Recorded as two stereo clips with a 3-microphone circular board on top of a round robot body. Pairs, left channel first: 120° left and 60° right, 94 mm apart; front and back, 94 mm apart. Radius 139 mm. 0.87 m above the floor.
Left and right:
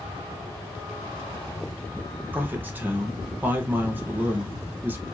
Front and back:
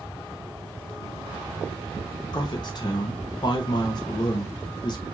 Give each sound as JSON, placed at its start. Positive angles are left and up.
{"t": 2.3, "sound": "a man speaking", "azimuth_deg": 5, "distance_m": 1.1}